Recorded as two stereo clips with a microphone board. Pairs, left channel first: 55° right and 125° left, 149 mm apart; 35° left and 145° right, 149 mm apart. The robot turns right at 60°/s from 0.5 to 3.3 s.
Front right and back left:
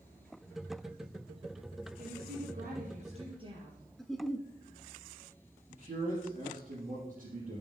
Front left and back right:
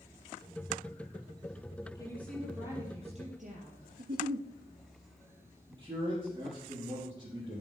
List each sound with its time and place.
1.9 s a woman speaking: 100° left, 5 m; by 3.9 s straight behind, 5 m
4.0 s a giggle: 145° right, 0.9 m
5.7 s a man speaking: 155° left, 5.5 m